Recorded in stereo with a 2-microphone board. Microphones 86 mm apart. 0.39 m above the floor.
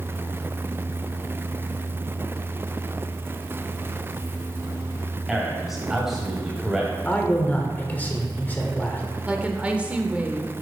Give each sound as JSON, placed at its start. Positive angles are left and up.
{"t": 5.3, "sound": "a man speaking", "side_deg": -5, "distance_m": 2.5}
{"t": 7.0, "sound": "a man speaking", "side_deg": 20, "distance_m": 1.2}
{"t": 9.2, "sound": "a woman speaking", "side_deg": -15, "distance_m": 0.8}